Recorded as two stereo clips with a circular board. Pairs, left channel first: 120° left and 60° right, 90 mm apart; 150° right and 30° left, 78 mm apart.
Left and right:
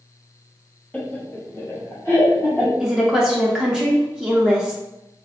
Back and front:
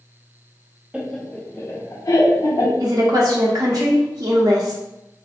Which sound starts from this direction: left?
Laughter, at 0.9 s.